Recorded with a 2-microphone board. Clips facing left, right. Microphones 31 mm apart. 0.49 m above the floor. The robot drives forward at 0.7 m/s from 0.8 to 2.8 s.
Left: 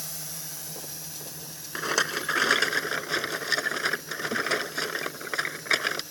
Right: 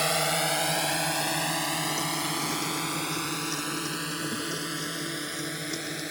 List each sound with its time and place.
0.0 s a drone: 65° right (ahead or behind); by 6.1 s 55° right (ahead or behind)
1.8 s a rattle: 85° left; by 6.0 s 65° left (ahead or behind)